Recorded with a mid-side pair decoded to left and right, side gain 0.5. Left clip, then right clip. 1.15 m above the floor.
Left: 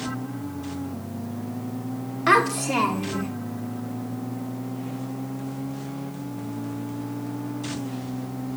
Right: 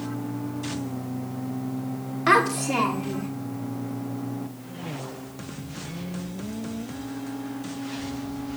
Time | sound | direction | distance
2.3 | a child speaking | straight ahead | 1.5 m